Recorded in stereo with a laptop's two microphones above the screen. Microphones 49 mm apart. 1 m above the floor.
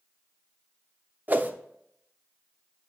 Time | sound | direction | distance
1.3 | a whoosh | 40° right (ahead or behind) | 0.6 m